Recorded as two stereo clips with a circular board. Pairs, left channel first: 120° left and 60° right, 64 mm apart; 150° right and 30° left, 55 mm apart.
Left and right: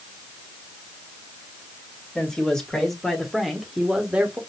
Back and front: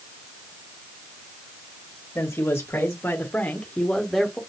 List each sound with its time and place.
2.1 s a man speaking: 170° right, 1.6 m; by 4.4 s 50° right, 1.0 m